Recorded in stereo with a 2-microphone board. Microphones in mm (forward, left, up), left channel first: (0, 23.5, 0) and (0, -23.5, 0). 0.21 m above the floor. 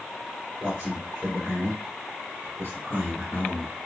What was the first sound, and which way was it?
A man speaking, 35° right (ahead or behind).